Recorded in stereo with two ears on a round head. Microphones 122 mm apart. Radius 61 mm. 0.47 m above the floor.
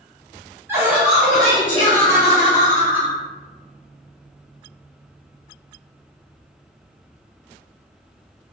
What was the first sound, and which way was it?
Laughter, 20° right (ahead or behind).